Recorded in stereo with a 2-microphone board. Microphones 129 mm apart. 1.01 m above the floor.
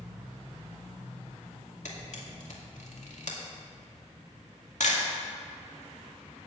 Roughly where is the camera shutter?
Left.